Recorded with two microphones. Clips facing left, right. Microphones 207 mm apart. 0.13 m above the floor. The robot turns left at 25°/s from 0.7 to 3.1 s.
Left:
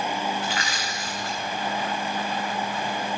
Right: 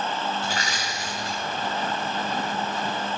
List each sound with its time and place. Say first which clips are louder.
0.4 s crushing: even; 45° right (ahead or behind), 6.5 m; by 1.4 s 25° right (ahead or behind), 6.5 m